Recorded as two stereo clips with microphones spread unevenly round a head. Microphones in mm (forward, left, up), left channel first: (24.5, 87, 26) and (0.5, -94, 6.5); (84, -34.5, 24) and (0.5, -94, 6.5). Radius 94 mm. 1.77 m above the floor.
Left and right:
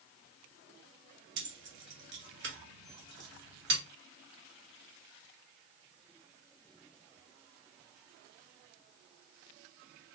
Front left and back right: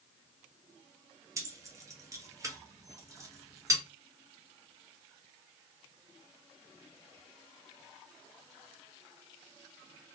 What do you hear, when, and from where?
1.4 s keys jangling: 85° right, 1.3 m